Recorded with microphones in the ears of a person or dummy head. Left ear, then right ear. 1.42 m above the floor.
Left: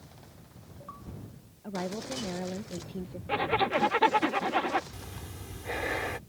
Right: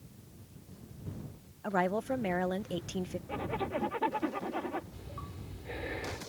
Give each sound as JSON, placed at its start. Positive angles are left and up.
{"t": 1.6, "sound": "a woman speaking", "side_deg": -45}
{"t": 3.3, "sound": "a zipper", "side_deg": 70}
{"t": 4.9, "sound": "breathing", "side_deg": 45}